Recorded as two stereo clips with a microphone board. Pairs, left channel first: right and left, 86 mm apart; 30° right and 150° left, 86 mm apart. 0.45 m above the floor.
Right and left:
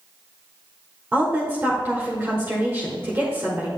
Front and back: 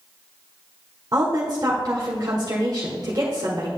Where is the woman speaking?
150° left, 1.2 m.